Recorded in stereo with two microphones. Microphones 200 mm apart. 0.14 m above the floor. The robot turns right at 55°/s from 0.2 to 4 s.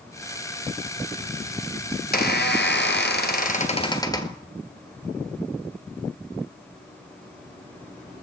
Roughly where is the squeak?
Ahead left.